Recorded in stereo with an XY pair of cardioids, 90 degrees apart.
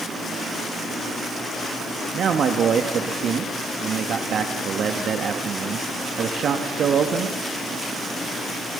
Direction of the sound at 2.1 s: 65° right.